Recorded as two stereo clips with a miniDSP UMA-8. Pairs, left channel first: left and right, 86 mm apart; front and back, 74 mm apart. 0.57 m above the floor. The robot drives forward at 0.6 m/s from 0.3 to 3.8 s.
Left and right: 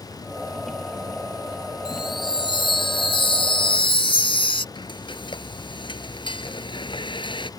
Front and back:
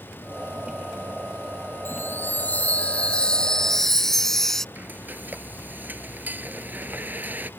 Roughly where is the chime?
Ahead left.